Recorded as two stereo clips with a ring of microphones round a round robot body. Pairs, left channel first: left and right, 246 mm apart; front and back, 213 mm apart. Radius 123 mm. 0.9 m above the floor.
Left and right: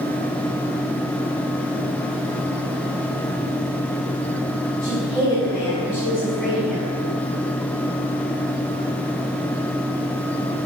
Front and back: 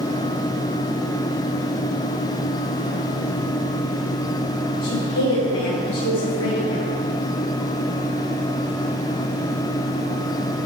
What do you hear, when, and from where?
4.8 s a woman speaking: 20° left, 4 m; by 6.9 s straight ahead, 5 m